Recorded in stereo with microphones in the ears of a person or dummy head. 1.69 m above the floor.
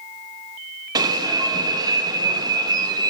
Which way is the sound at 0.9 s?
20° right (ahead or behind).